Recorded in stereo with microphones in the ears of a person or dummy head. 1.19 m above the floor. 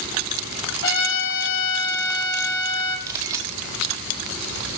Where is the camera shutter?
20° right (ahead or behind), 3.5 m.